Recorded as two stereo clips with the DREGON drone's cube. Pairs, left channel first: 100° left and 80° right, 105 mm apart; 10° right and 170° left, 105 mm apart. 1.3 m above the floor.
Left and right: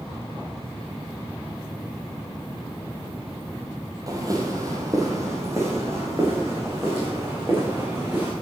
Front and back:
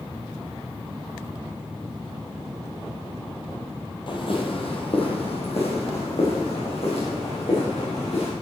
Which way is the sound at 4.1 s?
30° right.